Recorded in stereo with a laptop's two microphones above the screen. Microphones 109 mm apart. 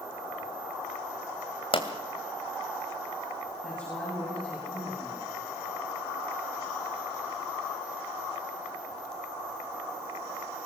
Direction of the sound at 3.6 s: 5° left (ahead or behind).